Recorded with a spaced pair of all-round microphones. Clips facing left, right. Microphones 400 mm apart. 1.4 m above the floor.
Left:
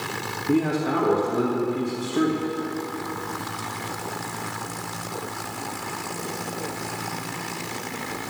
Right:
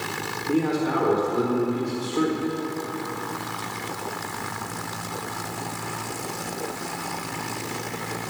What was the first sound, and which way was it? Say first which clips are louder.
A man speaking: left 1 dB; 65° left (ahead or behind).